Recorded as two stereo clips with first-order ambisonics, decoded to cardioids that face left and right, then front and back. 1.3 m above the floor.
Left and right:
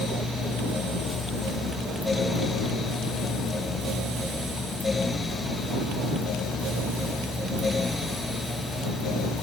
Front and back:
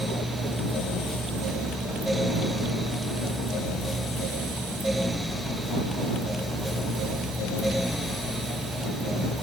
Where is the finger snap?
No finger snap in this recording.